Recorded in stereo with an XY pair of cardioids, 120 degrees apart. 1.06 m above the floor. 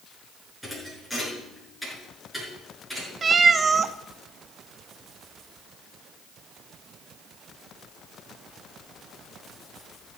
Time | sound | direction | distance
0.6 | a thud | straight ahead | 6.5 m
3.2 | a cat meowing | 35° right | 0.8 m